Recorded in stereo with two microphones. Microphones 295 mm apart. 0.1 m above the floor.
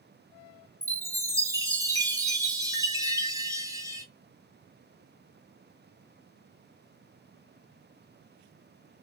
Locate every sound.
0.8 s a chime: 10° right (ahead or behind), 0.5 m